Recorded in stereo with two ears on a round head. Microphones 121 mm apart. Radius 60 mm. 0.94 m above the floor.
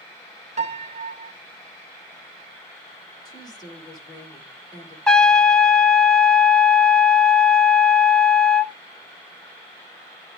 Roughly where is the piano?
Right.